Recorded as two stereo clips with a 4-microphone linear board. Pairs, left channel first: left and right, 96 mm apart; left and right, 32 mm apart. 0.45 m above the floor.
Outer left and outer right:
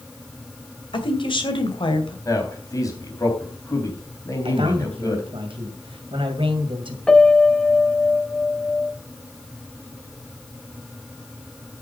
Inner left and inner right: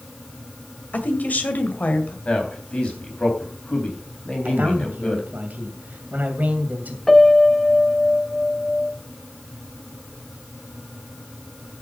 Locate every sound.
0.9 s a woman speaking: 60° left (ahead or behind), 2 m
2.2 s a man speaking: 35° left (ahead or behind), 3.5 m
4.5 s a man speaking: 65° right (ahead or behind), 2 m
7.1 s a piano: 10° left (ahead or behind), 0.7 m